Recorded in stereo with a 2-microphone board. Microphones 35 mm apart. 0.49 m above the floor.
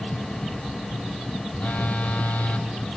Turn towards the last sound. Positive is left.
turn(degrees=60)  # may be behind; listen again after turning